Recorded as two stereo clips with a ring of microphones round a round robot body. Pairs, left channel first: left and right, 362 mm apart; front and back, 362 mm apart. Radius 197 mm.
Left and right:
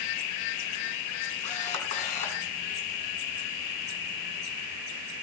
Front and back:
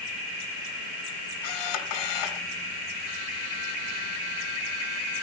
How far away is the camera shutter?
About 2.5 m.